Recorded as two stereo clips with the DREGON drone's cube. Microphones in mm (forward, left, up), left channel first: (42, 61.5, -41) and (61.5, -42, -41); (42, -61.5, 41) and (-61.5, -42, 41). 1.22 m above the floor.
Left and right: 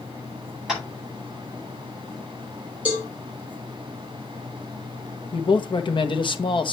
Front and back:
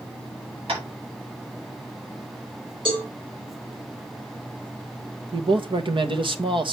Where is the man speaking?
135° left, 1.2 m.